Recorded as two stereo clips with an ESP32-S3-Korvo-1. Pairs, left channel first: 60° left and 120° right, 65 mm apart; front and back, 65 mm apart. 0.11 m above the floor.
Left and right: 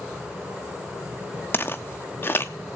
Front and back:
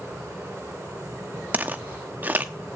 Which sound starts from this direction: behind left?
Footsteps, at 1.5 s.